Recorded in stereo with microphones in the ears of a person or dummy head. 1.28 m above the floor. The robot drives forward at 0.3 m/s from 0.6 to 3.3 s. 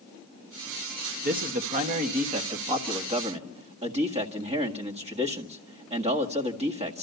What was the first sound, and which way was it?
A man speaking, 45° right (ahead or behind).